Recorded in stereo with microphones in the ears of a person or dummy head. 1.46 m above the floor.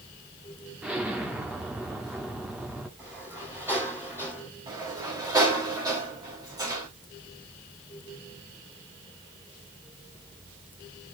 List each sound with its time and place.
0.8 s an explosion: 5° right (ahead or behind), 1.4 m
3.0 s a sliding door: 10° right (ahead or behind), 6.5 m
4.7 s a sliding door: 20° right (ahead or behind), 3.5 m